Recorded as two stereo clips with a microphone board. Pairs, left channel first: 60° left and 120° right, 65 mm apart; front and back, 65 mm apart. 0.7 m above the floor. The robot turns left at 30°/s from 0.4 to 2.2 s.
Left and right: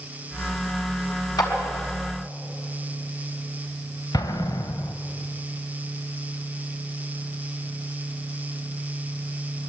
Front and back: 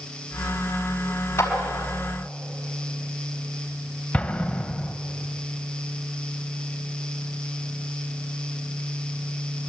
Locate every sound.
1.4 s a clap: 50° left, 4.5 m; by 1.5 s 45° left, 4.5 m
4.1 s an explosion: 70° left, 1.3 m